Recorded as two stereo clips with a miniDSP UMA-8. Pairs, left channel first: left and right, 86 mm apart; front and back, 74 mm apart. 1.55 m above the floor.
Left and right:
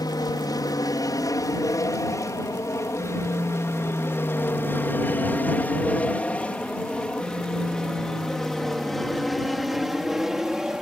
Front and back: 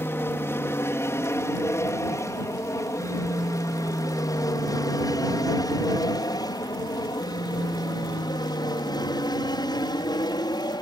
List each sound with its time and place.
0.0 s an aircraft: 55° left; by 10.8 s 5° right